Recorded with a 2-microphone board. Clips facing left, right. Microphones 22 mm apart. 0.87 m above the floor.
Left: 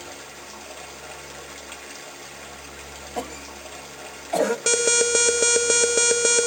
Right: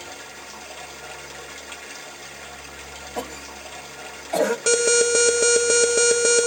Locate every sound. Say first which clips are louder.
0.0 s running water: right 1 dB; 10° right (ahead or behind), 1.2 m
3.2 s a cough: even; 5° left (ahead or behind), 0.7 m
4.7 s an alarm: right 3 dB; 10° left (ahead or behind), 1.4 m